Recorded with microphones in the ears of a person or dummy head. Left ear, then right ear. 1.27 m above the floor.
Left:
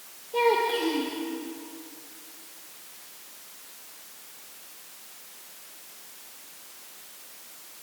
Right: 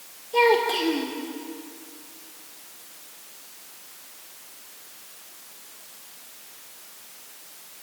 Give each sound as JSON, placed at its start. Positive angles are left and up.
{"t": 0.3, "sound": "a child speaking", "side_deg": -30, "distance_m": 3.0}